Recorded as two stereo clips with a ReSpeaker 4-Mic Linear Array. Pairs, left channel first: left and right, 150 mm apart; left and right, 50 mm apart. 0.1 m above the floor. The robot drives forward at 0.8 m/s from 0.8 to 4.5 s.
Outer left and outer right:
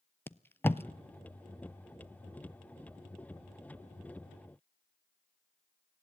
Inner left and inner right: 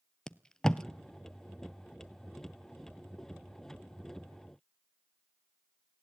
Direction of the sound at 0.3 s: 15° left (ahead or behind).